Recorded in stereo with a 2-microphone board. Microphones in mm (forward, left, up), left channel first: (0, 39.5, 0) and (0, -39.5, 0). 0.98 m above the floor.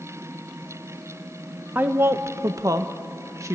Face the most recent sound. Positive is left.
turn(degrees=-40)  # may be behind; listen again after turning